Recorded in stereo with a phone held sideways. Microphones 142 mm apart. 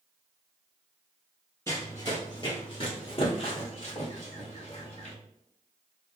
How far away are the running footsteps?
About 1.5 m.